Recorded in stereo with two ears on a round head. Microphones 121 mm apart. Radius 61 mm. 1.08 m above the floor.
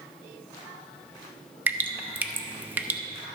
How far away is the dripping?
About 0.7 m.